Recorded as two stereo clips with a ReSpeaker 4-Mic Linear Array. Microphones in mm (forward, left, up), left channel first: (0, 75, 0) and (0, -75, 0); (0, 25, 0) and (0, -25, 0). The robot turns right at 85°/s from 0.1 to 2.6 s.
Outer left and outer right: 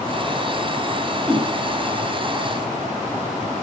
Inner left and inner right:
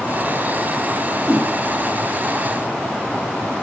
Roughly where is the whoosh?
Right.